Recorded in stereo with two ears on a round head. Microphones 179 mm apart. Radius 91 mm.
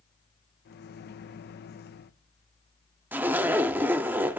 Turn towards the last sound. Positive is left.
turn(degrees=-10)  # may be behind; listen again after turning